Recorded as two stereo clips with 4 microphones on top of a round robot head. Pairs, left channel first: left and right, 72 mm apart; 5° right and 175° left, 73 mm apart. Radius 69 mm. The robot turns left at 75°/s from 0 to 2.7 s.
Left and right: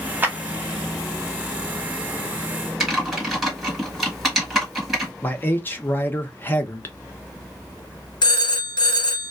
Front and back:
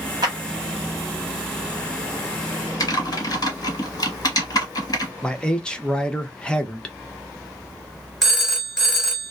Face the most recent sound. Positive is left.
turn(degrees=85)